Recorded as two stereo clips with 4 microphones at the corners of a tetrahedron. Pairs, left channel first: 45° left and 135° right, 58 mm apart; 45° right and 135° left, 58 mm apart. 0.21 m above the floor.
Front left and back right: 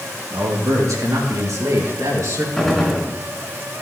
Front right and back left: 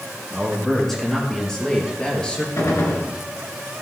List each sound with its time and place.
0.3 s a man speaking: 135° right, 4 m; by 2.5 s 115° right, 3 m
2.6 s a gunshot: 40° right, 2.5 m